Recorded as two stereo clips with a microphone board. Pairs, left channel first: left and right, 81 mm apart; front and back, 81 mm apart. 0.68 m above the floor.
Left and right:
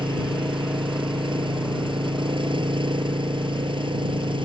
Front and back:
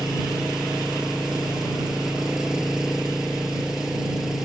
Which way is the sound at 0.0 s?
95° right.